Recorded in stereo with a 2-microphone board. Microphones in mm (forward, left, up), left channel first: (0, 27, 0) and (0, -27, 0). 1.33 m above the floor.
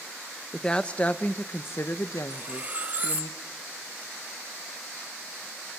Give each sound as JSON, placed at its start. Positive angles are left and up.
{"t": 0.5, "sound": "a woman speaking", "side_deg": 10, "distance_m": 1.1}
{"t": 2.3, "sound": "cutlery clinking", "side_deg": -30, "distance_m": 1.6}